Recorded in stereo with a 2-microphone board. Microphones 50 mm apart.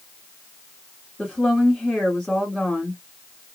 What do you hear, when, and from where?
1.2 s a woman speaking: 10° left (ahead or behind), 2 m